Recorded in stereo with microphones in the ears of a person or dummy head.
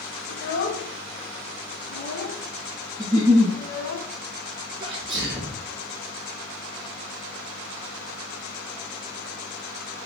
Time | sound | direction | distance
0.3 | a child speaking | 70° left (ahead or behind) | 0.5 m
3.0 | a giggle | 15° right (ahead or behind) | 1.4 m
4.8 | a sneeze | 30° right (ahead or behind) | 0.5 m